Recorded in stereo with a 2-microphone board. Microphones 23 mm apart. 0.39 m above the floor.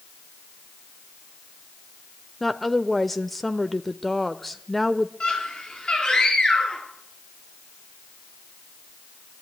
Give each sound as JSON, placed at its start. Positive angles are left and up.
{"t": 2.4, "sound": "a woman speaking", "side_deg": 10, "distance_m": 0.8}
{"t": 5.2, "sound": "a scream", "side_deg": 40, "distance_m": 8.0}